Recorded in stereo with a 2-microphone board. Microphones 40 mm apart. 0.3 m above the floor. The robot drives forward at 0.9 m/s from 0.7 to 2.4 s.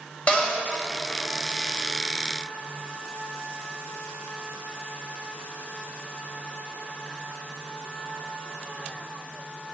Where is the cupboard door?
30° left (ahead or behind), 1.3 m.